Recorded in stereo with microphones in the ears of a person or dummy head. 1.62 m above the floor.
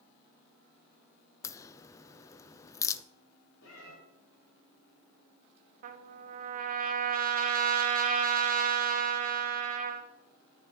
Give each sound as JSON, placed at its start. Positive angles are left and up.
{"t": 1.4, "sound": "a crack", "side_deg": 15, "distance_m": 0.6}
{"t": 3.6, "sound": "a cat meowing", "side_deg": 70, "distance_m": 5.5}
{"t": 5.8, "sound": "a trumpet", "side_deg": -45, "distance_m": 1.1}